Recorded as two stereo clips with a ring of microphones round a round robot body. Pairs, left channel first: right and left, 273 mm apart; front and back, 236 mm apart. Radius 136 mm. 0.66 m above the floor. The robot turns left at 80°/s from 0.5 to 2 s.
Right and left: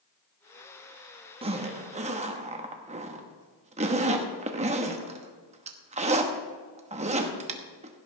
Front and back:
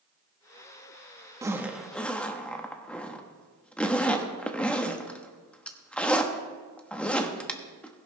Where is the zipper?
125° left, 1.0 m; by 8.1 s 75° left, 1.0 m.